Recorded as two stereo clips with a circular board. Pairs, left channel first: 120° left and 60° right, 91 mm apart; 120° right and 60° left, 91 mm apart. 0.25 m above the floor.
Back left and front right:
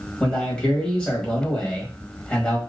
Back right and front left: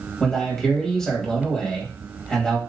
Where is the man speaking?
175° left, 1.2 m.